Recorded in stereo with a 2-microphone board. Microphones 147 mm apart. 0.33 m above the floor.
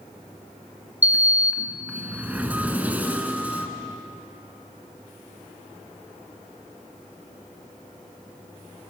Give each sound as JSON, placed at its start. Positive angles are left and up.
{"t": 1.0, "sound": "a sliding door", "side_deg": -10, "distance_m": 1.6}